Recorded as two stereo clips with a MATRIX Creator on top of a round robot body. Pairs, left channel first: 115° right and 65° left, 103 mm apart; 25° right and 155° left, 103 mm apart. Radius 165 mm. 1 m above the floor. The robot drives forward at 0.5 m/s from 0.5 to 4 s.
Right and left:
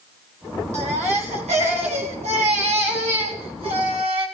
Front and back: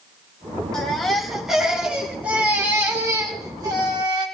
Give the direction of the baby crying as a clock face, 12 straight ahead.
10 o'clock.